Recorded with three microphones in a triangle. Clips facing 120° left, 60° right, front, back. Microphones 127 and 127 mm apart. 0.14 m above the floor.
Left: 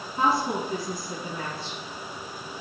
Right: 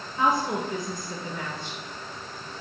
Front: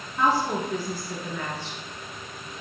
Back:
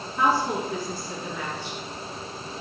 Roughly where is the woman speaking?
Left.